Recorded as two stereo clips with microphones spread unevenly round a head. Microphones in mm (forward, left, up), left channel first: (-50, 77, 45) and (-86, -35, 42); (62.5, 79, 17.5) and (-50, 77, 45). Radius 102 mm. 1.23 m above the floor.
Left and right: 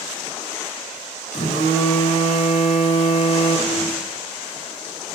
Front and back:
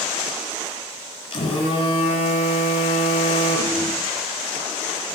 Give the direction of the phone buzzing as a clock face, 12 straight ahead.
11 o'clock.